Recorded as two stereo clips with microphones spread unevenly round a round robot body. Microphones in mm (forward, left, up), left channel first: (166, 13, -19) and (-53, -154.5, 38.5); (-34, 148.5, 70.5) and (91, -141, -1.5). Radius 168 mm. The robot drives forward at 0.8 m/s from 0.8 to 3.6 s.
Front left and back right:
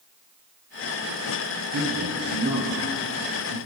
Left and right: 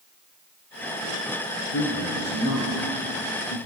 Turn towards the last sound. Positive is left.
turn(degrees=170)